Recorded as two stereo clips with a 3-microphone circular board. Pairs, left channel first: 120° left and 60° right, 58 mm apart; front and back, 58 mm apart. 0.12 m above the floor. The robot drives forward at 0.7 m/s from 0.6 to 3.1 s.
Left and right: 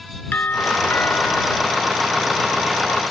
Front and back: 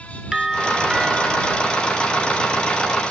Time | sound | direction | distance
0.3 | a doorbell | 105° left | ?